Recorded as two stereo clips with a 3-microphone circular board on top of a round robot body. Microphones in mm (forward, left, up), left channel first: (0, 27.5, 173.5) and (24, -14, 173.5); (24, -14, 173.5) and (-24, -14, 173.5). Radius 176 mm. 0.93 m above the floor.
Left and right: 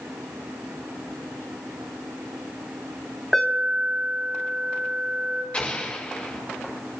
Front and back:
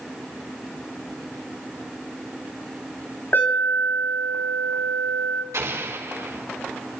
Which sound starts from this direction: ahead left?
An alarm, at 3.3 s.